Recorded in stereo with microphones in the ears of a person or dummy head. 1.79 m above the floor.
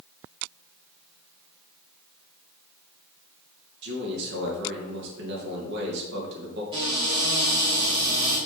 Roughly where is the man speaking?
Right.